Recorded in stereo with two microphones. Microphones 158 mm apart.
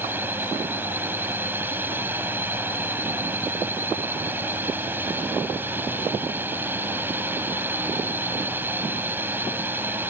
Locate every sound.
0.0 s a drone: 10° right (ahead or behind)